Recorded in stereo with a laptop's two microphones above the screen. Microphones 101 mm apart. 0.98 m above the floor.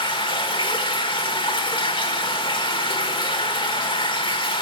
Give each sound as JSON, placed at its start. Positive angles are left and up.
{"t": 0.0, "sound": "running water", "side_deg": 55, "distance_m": 1.7}